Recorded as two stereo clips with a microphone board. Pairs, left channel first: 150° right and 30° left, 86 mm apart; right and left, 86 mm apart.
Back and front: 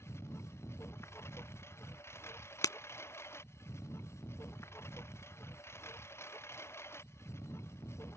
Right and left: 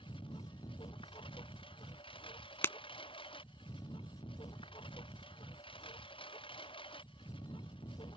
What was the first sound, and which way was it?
A lawn mower, 90° right.